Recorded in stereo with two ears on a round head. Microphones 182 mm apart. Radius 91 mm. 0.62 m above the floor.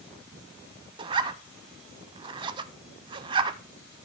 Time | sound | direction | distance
1.0 | a zipper | 25° right (ahead or behind) | 0.5 m